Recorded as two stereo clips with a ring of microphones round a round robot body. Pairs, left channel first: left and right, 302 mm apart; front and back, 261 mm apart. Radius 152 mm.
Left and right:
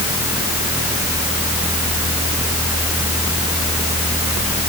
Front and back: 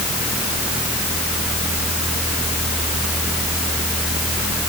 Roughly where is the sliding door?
I don't hear a sliding door.